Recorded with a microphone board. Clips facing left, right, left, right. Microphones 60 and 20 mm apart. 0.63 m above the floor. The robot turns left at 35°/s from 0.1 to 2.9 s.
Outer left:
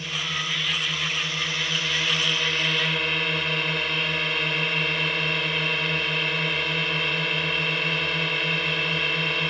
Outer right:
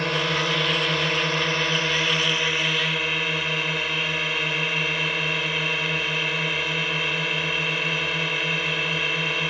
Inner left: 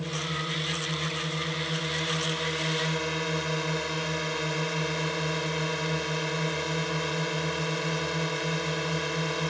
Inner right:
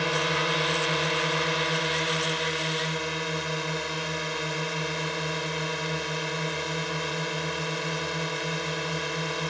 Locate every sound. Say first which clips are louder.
0.0 s a drone: outer right 6 dB, inner right 6 dB; 80° right; by 9.5 s 175° right